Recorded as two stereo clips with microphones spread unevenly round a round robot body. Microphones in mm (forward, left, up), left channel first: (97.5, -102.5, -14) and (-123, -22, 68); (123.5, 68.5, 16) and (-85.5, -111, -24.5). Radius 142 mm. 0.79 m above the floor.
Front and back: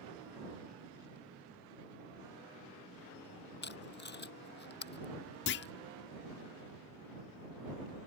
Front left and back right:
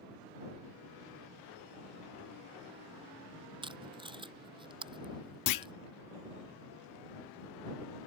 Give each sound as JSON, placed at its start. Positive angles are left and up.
{"t": 3.6, "sound": "tape being pulled", "azimuth_deg": -65}
{"t": 5.5, "sound": "a clunk", "azimuth_deg": 20}